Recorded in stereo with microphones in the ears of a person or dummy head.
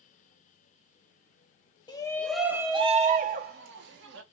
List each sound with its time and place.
1.9 s a shout: 20° left (ahead or behind), 0.9 m; by 4.2 s 70° right (ahead or behind), 1.4 m